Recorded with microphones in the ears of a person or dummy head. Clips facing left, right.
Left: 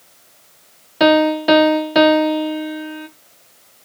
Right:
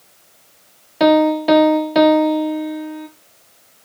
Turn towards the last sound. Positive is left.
turn(degrees=0)  # may be behind; listen again after turning